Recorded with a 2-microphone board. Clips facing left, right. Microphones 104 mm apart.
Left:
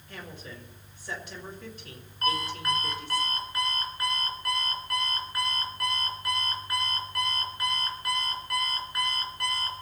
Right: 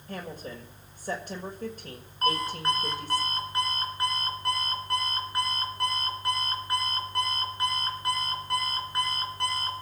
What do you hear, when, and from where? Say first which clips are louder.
0.1 s a woman speaking: right 5 dB; 45° right (ahead or behind), 1.6 m
2.2 s an alarm clock: right 2 dB; 25° right (ahead or behind), 3.5 m